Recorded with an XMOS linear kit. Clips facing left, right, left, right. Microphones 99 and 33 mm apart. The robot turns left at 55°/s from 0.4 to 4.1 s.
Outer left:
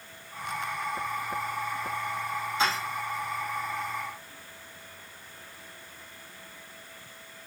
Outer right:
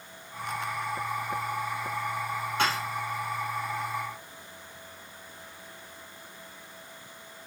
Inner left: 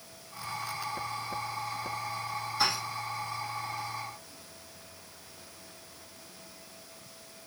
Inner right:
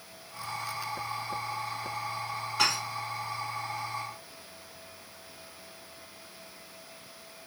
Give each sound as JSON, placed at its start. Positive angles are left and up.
{"t": 2.6, "sound": "dishes clattering", "side_deg": -70, "distance_m": 2.5}